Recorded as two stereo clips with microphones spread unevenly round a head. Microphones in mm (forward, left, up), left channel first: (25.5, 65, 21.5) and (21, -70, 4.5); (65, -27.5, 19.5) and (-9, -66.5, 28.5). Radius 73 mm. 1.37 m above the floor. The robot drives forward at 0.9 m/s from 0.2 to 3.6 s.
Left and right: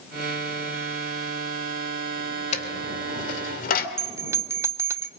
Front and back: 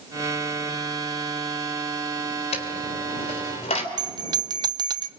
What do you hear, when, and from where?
2.5 s a dropped coin: 50° left, 2.5 m; by 3.9 s 75° left, 2 m
4.0 s a bell: 165° right, 0.5 m